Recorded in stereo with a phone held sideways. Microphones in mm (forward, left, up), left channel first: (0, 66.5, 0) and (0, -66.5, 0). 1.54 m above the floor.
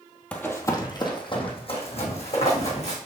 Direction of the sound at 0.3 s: 10° left (ahead or behind).